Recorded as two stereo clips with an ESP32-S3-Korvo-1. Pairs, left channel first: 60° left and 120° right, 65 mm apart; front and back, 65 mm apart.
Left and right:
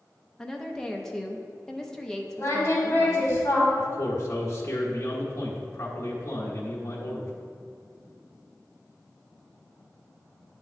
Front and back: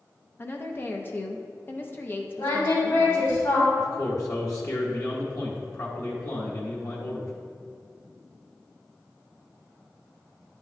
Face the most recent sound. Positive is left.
turn(degrees=25)